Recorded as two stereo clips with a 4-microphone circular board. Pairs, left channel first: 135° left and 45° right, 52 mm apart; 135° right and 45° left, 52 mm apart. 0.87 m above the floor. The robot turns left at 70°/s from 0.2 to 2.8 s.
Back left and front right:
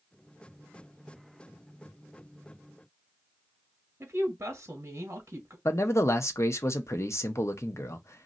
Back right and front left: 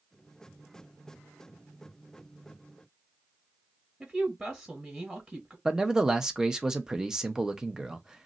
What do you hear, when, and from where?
4.0 s a woman speaking: 20° right, 1.1 m
5.7 s a man speaking: 120° left, 0.6 m